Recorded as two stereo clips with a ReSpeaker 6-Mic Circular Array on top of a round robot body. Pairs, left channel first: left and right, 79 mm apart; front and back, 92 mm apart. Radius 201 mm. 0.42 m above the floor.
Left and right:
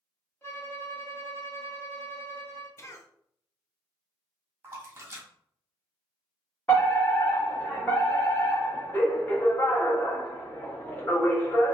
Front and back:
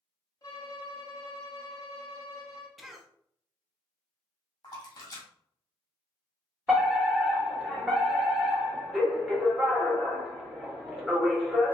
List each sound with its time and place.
0.4 s a violin: 35° left, 1.6 m
2.8 s a cough: 90° left, 1.0 m
4.6 s a splash: 35° right, 1.5 m
6.7 s a fire alarm: 100° left, 1.9 m